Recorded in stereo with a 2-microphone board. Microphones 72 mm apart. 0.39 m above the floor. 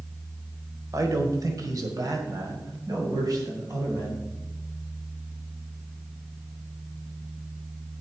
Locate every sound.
0.9 s a man speaking: 50° right (ahead or behind), 1.3 m; by 4.2 s 55° right (ahead or behind), 3 m